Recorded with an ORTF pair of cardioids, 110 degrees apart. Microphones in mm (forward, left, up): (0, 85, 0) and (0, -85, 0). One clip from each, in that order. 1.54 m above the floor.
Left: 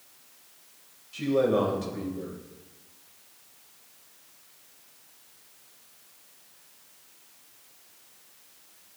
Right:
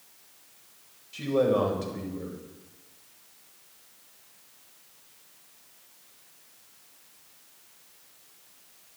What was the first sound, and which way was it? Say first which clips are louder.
A man speaking: even; 10° right.